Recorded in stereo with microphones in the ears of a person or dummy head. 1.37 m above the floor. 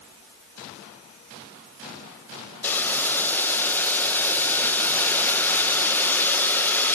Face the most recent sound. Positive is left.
turn(degrees=10)  # may be behind; listen again after turning